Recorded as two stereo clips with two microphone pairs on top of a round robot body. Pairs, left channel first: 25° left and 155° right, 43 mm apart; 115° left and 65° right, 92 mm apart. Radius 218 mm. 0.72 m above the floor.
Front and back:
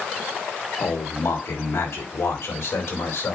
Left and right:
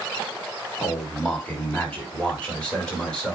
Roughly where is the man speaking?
Ahead left.